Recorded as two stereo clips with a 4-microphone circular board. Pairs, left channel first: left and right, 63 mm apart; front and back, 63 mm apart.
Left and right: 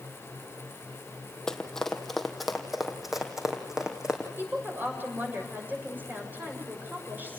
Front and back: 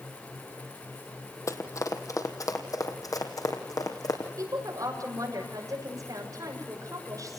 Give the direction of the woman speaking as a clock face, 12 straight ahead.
5 o'clock.